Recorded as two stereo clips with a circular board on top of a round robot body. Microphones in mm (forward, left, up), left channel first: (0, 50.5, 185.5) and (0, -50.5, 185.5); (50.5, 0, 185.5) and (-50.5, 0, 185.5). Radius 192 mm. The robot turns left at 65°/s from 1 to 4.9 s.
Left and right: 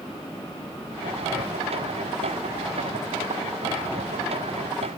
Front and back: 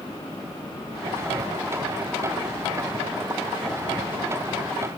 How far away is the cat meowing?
No cat meowing in this recording.